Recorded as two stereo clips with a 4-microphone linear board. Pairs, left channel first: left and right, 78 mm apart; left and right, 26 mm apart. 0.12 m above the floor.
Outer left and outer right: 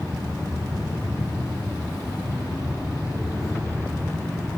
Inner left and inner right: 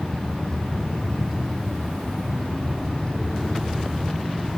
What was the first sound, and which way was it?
An insect, 5° left (ahead or behind).